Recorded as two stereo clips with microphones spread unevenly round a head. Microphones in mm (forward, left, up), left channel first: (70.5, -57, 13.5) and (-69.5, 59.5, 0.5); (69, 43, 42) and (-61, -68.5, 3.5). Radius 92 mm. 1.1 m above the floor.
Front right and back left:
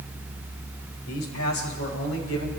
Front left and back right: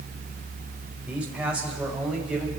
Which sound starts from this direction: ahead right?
A man speaking, at 1.1 s.